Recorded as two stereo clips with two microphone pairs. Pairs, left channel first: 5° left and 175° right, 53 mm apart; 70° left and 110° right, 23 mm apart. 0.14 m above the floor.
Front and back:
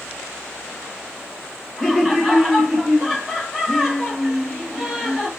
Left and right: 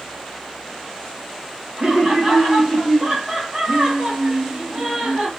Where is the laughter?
90° right, 2 m.